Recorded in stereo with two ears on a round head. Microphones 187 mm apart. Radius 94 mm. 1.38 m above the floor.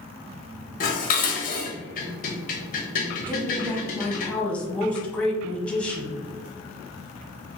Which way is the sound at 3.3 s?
5° left (ahead or behind).